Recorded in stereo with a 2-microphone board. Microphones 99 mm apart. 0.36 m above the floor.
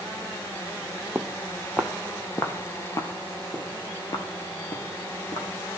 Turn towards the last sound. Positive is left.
turn(degrees=50)  # may be behind; listen again after turning